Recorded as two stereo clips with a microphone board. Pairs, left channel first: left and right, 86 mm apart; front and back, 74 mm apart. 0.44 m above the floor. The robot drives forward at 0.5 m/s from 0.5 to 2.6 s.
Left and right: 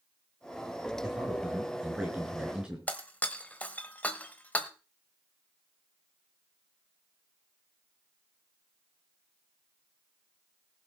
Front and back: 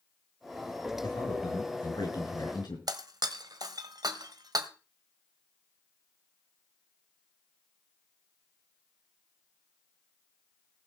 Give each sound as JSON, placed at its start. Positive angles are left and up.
{"t": 1.0, "sound": "a man speaking", "azimuth_deg": -10, "distance_m": 6.0}
{"t": 2.9, "sound": "breaking glass", "azimuth_deg": 160, "distance_m": 1.2}